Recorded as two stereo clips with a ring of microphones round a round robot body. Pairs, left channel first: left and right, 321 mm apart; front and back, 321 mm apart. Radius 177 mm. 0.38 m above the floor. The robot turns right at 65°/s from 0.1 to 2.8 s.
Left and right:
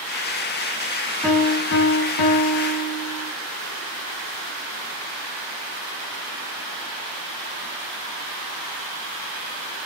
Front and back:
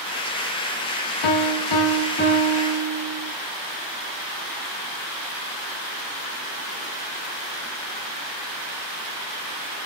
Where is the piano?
Straight ahead, 1.6 m; by 3.3 s 100° left, 1.6 m.